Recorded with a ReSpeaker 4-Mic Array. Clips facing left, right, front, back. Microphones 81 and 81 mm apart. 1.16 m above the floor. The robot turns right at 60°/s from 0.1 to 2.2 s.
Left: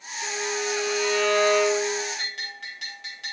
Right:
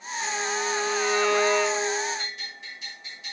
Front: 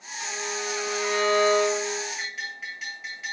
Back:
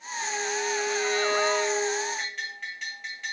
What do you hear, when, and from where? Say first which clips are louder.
0.2 s a violin: even, back 2 dB; 80° right, 5.5 m; by 2.0 s 30° left, 5.5 m
2.2 s a bell: left 2 dB, even; 85° left, 3.5 m